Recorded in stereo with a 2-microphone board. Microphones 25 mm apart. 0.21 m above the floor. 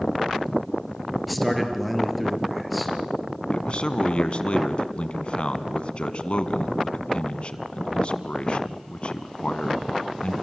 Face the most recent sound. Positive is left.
turn(degrees=45)  # may be behind; listen again after turning